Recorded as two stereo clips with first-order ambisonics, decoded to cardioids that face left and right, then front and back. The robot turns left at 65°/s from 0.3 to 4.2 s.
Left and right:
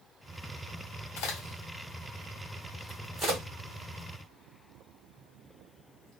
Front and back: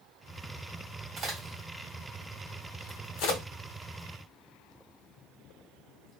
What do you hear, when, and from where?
1.2 s a crack: 110° left, 1.5 m; by 6.2 s 85° right, 1.5 m